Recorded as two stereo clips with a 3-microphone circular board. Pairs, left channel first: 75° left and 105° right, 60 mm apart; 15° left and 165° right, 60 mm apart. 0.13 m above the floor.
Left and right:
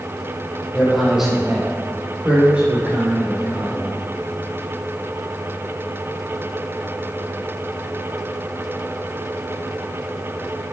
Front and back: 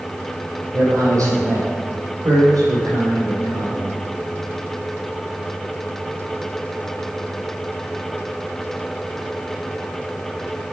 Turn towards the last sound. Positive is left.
turn(degrees=-170)